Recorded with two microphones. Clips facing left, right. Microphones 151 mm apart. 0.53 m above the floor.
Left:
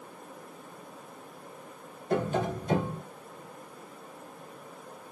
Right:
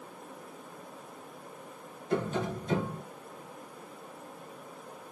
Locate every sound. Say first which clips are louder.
2.1 s tapping: left 3 dB; 50° left (ahead or behind), 0.8 m